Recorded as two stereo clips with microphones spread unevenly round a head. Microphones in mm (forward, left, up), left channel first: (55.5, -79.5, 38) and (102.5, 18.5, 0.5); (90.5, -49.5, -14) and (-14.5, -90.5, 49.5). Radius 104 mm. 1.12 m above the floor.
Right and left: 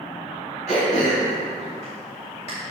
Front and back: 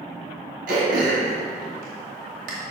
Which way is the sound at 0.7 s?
Straight behind.